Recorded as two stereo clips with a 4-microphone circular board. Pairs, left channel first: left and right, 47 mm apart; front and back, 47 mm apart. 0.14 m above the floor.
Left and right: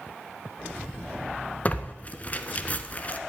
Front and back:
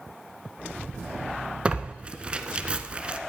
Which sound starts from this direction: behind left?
Tearing paper, at 1.6 s.